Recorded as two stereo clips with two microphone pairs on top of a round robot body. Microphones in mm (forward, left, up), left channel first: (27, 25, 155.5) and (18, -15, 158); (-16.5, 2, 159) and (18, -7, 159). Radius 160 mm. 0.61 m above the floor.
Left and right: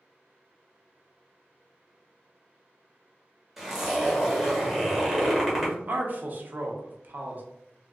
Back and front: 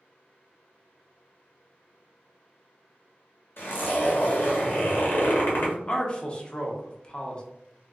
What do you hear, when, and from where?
3.6 s a zipper: 170° left, 1.2 m
5.6 s a man speaking: 135° right, 0.9 m